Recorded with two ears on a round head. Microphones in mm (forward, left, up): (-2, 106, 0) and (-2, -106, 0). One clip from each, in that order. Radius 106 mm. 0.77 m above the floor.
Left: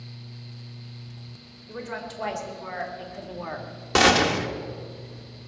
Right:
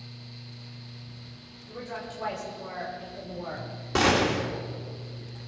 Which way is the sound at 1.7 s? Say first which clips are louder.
Left 3 dB; 35° left (ahead or behind).